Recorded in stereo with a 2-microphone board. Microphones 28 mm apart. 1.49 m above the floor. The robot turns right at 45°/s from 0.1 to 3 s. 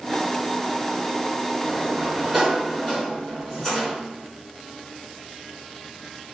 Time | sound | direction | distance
1.6 | a sliding door | 55° right | 4 m